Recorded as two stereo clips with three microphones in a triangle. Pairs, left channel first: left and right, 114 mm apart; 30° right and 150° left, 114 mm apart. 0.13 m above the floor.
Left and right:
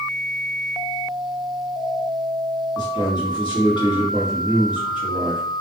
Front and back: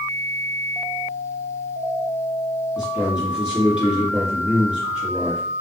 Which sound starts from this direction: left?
A man speaking, at 2.8 s.